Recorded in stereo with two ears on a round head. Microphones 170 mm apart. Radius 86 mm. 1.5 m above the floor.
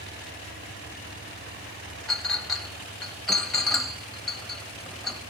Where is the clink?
Centre (ahead or behind), 1.1 m.